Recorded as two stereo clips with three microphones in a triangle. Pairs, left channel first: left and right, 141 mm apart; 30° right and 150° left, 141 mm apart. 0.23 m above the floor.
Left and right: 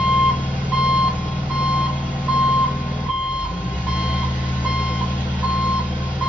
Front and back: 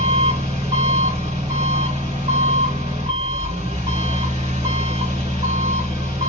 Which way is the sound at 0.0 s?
165° left.